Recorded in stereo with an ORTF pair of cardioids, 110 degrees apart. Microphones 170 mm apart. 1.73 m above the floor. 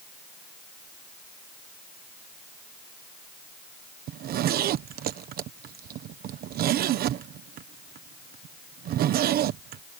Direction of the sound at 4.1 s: 65° right.